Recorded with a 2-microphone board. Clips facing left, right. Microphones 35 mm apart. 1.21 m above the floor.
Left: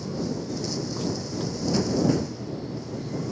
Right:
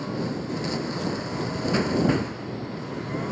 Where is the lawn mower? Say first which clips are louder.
Right 1 dB; 40° right (ahead or behind); by 3.3 s 45° right (ahead or behind).